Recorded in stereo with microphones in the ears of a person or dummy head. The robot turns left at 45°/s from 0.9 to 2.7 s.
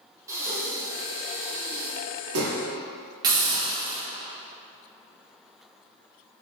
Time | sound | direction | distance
0.3 | breathing | 15° right (ahead or behind) | 0.9 m
3.2 | a hiss | 20° right (ahead or behind) | 1.1 m